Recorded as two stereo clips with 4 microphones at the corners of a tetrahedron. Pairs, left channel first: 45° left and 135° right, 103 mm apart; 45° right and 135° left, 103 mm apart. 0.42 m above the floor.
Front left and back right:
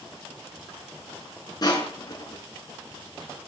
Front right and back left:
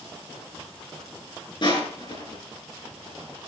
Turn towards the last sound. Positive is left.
turn(degrees=-5)